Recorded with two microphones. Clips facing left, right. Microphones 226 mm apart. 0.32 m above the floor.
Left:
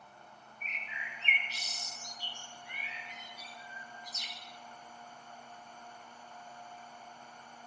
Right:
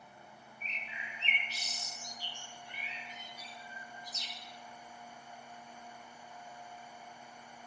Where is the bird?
35° right (ahead or behind), 0.7 m.